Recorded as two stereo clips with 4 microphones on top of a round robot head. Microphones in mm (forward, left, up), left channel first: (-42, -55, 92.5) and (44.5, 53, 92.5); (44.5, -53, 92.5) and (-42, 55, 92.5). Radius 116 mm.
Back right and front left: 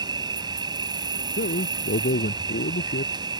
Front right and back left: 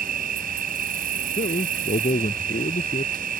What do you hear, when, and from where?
0.0 s an insect: 110° left
1.4 s a man speaking: 100° right